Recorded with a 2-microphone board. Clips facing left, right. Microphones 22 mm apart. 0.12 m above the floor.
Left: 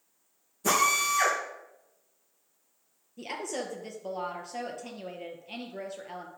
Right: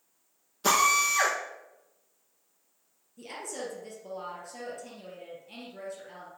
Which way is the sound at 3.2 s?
25° left (ahead or behind).